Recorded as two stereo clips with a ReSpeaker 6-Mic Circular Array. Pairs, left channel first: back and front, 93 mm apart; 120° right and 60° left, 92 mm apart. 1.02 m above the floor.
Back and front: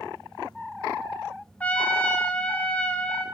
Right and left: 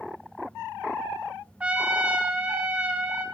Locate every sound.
1.6 s a trumpet: 120° left, 0.6 m